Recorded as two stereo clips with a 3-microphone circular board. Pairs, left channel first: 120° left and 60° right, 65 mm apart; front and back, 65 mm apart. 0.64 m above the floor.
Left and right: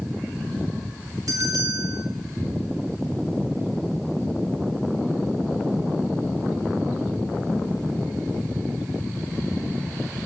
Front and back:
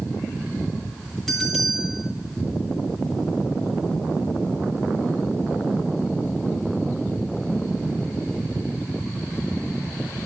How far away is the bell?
About 7.5 m.